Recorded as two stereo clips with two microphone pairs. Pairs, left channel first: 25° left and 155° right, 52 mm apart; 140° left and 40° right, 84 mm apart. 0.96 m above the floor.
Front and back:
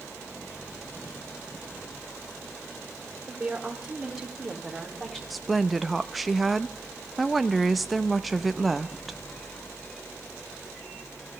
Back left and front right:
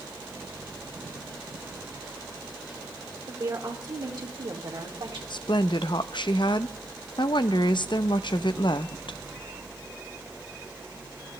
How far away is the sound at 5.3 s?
About 0.6 m.